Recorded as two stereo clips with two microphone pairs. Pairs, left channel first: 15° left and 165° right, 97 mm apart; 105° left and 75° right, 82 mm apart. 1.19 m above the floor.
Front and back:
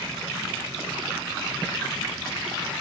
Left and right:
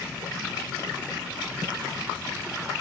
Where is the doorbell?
No doorbell in this recording.